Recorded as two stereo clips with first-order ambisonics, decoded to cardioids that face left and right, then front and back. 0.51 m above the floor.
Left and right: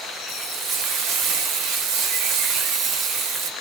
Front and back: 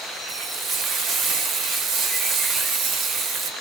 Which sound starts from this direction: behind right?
Frying, at 0.3 s.